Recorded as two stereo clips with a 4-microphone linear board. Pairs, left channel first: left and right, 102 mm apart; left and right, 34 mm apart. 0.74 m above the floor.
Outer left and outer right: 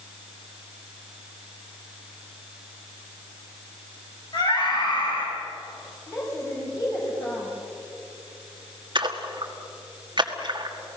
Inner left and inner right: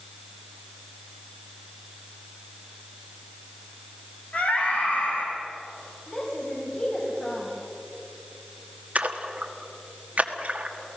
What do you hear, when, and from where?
4.3 s a scream: 50° left (ahead or behind), 6.5 m
6.1 s a woman speaking: 35° left (ahead or behind), 3.5 m
8.9 s a splash: 50° right (ahead or behind), 1.6 m